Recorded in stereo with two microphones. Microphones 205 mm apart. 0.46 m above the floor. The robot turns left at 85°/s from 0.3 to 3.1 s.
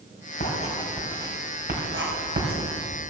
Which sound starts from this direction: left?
Writing, at 0.4 s.